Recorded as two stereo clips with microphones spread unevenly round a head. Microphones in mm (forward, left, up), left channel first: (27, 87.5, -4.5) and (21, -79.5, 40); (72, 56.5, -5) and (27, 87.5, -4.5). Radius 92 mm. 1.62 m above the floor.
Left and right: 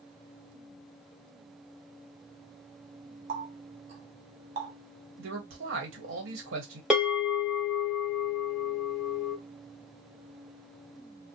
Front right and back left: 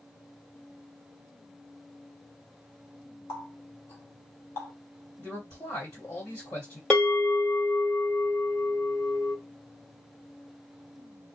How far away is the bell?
About 1.4 m.